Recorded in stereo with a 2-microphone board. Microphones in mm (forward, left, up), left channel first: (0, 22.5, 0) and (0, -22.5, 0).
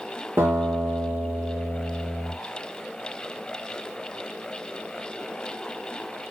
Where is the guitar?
50° right (ahead or behind), 7 m.